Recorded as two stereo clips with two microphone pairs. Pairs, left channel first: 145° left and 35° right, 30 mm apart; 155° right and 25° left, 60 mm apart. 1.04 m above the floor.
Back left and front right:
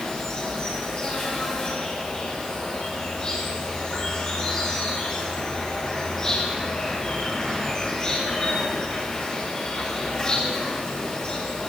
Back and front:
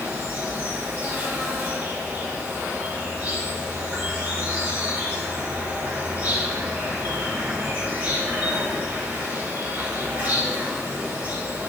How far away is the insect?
About 3 m.